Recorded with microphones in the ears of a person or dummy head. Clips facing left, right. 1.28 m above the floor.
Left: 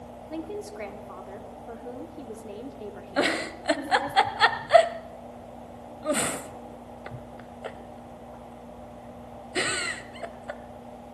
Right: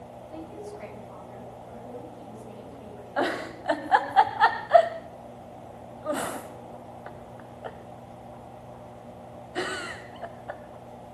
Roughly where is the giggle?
Left.